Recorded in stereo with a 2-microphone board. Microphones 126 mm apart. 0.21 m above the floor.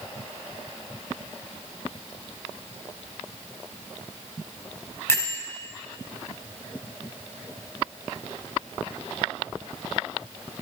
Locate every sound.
5.1 s a bell: 20° left (ahead or behind), 1.4 m